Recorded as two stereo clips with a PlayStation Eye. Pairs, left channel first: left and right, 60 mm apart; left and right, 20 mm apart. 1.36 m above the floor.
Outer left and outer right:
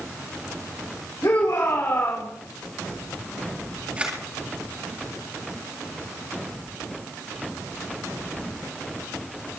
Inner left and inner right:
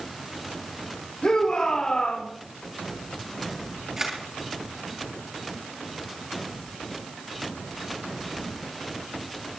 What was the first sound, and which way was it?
A shout, 70° left (ahead or behind).